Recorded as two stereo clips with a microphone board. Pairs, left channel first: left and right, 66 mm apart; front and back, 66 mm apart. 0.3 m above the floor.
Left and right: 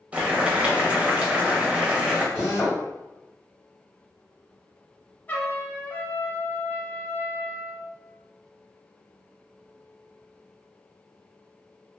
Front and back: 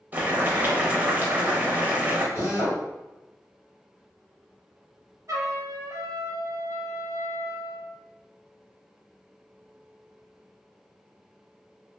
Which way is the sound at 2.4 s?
160° left.